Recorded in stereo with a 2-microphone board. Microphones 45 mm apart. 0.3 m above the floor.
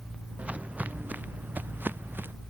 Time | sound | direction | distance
0.4 | footsteps | 30° right (ahead or behind) | ?